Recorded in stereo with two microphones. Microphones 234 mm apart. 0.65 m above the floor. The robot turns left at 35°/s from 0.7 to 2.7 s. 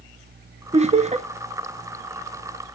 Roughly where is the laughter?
Right.